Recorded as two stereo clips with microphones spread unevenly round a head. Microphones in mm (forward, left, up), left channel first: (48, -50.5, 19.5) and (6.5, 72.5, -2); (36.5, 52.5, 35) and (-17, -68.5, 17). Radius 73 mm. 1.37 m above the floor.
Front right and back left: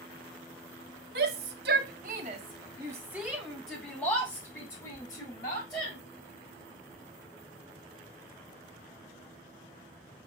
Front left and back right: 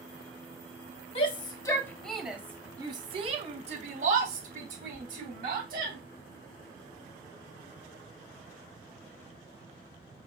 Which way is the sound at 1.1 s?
120° left.